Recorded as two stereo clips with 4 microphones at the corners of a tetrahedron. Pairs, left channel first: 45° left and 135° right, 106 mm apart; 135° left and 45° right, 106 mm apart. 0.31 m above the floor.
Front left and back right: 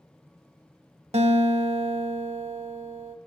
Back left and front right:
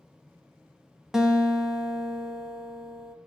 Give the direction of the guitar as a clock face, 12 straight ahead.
4 o'clock.